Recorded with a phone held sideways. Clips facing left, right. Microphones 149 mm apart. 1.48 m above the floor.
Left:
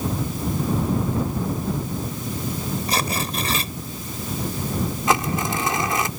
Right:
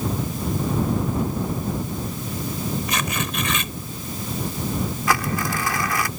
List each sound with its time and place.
2.9 s tearing paper: 35° left (ahead or behind)
5.1 s crumpling: 20° left (ahead or behind)